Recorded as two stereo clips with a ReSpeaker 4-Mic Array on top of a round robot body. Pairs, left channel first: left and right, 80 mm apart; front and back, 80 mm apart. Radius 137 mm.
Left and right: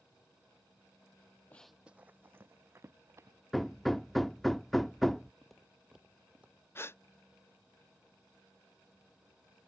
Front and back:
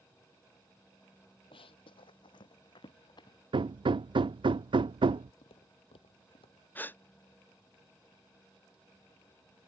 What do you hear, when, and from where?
1.5 s running footsteps: 20° left; by 3.4 s 35° right
3.5 s hammering: straight behind
5.4 s footsteps: 5° left; by 6.7 s 15° right
6.8 s a gasp: 55° left